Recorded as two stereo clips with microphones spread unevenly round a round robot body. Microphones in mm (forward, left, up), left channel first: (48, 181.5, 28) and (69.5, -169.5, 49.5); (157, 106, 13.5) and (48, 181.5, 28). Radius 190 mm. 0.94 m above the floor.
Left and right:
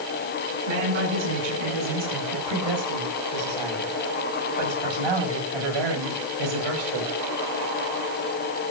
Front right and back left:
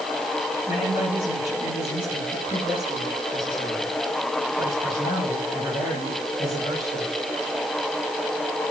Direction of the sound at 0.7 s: 110° right.